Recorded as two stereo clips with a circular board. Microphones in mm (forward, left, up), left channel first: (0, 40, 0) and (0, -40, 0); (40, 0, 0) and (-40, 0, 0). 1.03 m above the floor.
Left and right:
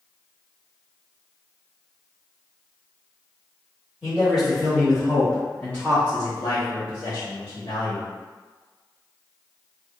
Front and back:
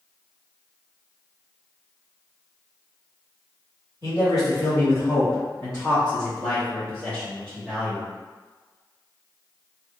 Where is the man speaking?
5° right, 1.8 m; by 8.1 s 95° left, 1.1 m.